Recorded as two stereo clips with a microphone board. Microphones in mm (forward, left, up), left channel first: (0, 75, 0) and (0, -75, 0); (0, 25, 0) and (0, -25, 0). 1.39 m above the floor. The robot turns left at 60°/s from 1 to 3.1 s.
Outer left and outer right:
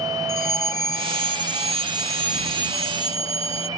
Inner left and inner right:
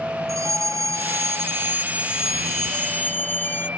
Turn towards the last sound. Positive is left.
turn(degrees=140)